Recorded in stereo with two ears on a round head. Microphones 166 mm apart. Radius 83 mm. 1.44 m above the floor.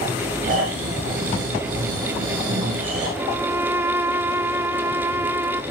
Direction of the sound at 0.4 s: 50° right (ahead or behind).